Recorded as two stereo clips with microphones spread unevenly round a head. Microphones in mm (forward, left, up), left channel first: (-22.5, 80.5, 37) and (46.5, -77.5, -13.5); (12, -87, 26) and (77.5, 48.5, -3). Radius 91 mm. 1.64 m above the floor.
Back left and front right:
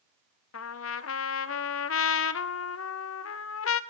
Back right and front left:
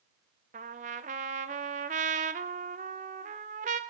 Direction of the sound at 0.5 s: 115° left.